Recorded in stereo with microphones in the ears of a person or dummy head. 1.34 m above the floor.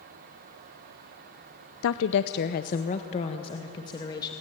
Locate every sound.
1.8 s a woman speaking: 70° left (ahead or behind), 0.8 m; by 4.3 s 20° left (ahead or behind), 2.5 m